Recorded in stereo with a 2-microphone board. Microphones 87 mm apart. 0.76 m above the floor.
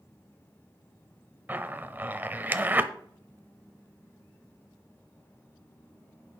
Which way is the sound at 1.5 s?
25° right (ahead or behind).